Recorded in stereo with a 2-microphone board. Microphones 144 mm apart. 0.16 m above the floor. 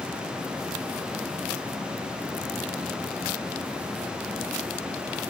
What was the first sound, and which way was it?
Only background noise.